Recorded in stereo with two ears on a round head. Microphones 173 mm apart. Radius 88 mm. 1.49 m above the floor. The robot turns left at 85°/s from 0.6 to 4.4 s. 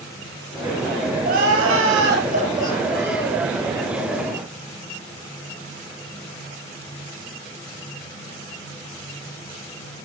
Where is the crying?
35° right, 5 m; by 3.4 s 140° left, 5 m.